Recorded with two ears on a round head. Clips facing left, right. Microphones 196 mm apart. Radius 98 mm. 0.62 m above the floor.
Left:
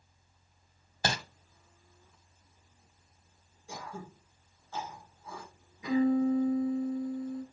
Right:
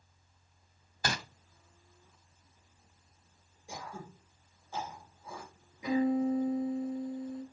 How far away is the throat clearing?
About 2.5 m.